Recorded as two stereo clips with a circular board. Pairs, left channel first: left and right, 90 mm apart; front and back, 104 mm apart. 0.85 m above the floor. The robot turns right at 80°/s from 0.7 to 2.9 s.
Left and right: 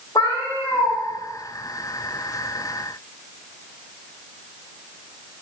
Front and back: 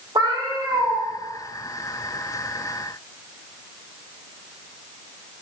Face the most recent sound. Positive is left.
turn(degrees=-50)